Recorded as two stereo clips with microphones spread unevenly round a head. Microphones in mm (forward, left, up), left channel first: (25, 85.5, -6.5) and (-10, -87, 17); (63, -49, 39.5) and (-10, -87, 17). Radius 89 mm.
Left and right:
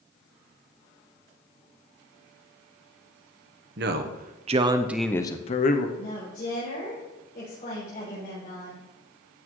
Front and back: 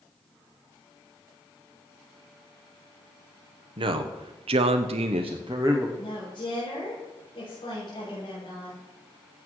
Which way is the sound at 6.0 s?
30° left.